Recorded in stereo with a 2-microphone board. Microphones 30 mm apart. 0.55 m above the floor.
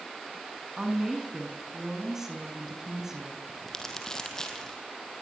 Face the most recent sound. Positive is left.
turn(degrees=20)  # may be behind; listen again after turning